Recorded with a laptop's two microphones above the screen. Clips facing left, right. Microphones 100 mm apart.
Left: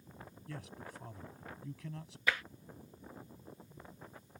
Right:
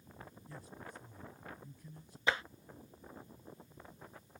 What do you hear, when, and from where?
0.5 s a man speaking: 80° left; by 2.2 s 85° left
2.3 s tapping: 25° right (ahead or behind)